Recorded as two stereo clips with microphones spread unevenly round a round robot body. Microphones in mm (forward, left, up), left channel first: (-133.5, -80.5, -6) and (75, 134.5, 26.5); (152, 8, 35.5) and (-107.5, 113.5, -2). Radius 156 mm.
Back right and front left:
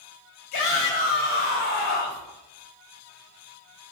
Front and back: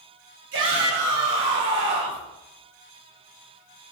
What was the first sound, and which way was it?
A shout, 150° right.